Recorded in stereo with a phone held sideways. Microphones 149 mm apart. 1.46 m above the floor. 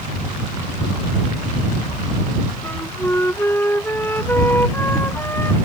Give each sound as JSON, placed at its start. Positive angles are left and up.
{"t": 2.6, "sound": "a flute", "side_deg": 15}